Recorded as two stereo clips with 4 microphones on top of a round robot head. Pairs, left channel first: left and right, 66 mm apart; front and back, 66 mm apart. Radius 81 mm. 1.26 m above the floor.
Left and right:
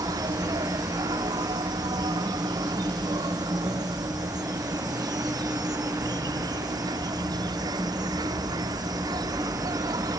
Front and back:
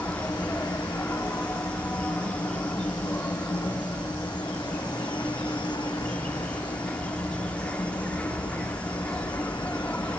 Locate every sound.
0.0 s an insect: 75° right